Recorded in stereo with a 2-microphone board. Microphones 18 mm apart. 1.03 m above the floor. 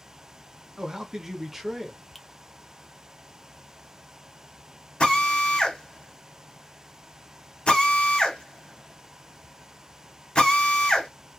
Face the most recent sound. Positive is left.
turn(degrees=65)  # may be behind; listen again after turning